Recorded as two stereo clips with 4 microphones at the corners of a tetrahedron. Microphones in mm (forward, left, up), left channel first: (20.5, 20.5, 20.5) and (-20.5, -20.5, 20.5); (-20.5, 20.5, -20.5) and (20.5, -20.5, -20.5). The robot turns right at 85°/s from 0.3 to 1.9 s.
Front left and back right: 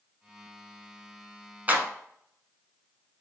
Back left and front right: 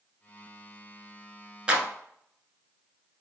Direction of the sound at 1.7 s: 105° right.